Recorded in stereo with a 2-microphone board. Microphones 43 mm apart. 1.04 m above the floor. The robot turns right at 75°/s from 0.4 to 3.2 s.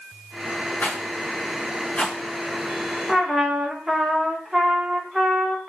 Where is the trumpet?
Centre (ahead or behind), 0.6 m; by 5.7 s 10° right (ahead or behind), 0.6 m.